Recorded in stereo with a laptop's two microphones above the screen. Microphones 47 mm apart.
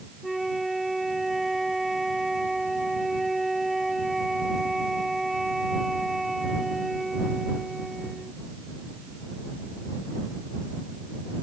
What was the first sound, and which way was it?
A flute, centre (ahead or behind).